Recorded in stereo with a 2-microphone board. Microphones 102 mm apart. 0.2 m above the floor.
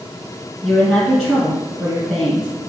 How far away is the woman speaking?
About 1.9 m.